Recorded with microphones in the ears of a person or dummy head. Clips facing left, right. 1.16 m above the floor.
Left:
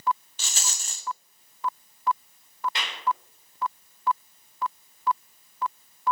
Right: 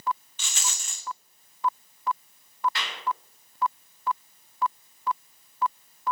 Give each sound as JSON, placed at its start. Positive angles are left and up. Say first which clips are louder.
{"t": 0.4, "sound": "a rattle", "louder": "right 1 dB", "side_deg": 40, "distance_m": 0.6}
{"t": 2.8, "sound": "a clap", "louder": "even", "side_deg": 20, "distance_m": 3.0}